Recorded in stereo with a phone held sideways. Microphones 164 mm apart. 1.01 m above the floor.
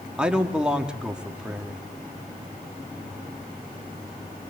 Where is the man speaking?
5° right (ahead or behind), 2.5 m.